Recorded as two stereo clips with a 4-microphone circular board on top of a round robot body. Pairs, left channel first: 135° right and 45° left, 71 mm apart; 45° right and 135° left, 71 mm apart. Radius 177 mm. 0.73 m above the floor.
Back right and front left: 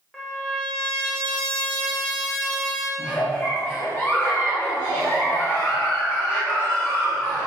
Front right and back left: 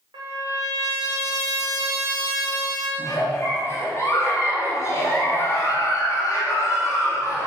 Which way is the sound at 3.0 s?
85° right.